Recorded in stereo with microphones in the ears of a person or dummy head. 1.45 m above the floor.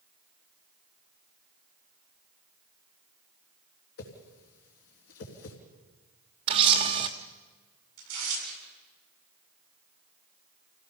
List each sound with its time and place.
4.0 s a whoosh: 65° left (ahead or behind), 3.5 m
6.5 s a camera shutter: 30° right (ahead or behind), 1.2 m
8.0 s tearing paper: 55° right (ahead or behind), 7.5 m